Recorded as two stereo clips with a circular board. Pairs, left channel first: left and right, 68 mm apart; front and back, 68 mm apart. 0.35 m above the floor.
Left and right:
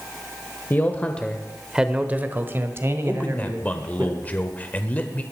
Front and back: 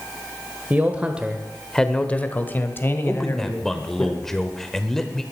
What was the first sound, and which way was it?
A man speaking, 130° left.